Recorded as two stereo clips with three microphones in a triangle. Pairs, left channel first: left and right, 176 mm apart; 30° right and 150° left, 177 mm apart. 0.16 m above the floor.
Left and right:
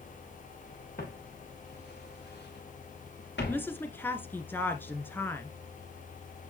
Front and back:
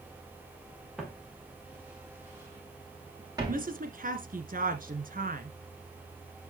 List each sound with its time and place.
1.0 s footsteps: 60° left, 5.5 m; by 3.7 s 85° left, 7 m
3.5 s a woman speaking: 165° left, 1.7 m